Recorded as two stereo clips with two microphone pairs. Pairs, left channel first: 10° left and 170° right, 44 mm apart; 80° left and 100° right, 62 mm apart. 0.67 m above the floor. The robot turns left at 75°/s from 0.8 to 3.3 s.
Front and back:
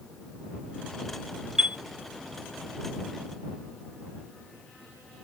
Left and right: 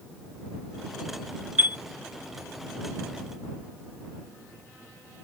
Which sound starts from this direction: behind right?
A chime, at 1.6 s.